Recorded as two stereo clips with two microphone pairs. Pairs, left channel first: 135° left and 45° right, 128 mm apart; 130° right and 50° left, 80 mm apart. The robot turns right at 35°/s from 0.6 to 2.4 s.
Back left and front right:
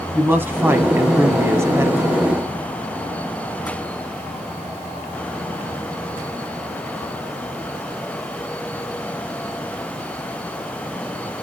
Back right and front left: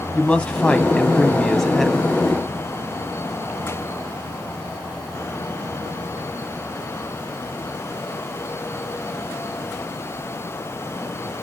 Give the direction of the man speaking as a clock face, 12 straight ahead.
3 o'clock.